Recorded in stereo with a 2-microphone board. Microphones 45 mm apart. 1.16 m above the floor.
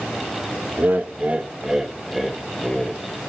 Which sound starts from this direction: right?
Laughter, at 0.8 s.